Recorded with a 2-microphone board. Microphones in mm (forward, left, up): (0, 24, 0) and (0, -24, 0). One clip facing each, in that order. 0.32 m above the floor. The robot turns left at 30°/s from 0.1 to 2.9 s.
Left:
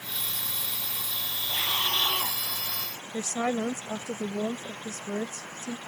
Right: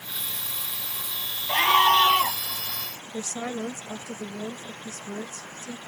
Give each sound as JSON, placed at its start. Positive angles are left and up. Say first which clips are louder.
{"t": 1.5, "sound": "a scream", "louder": "right 11 dB", "side_deg": -70}
{"t": 3.1, "sound": "a woman speaking", "louder": "left 3 dB", "side_deg": 40}